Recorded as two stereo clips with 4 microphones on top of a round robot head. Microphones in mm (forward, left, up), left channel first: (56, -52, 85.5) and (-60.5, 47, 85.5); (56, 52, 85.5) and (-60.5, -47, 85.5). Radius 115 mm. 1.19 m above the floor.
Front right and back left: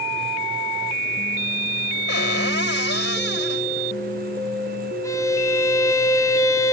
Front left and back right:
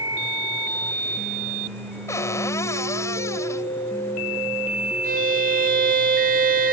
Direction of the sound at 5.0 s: 110° right.